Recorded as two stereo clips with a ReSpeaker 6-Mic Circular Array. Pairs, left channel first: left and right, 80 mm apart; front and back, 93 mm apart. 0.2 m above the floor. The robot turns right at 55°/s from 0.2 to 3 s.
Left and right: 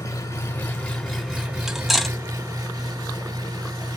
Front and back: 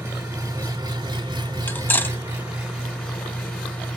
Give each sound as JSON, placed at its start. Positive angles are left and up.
{"t": 0.0, "sound": "an engine running", "azimuth_deg": 130, "distance_m": 1.9}
{"t": 1.7, "sound": "cutlery clinking", "azimuth_deg": -20, "distance_m": 0.5}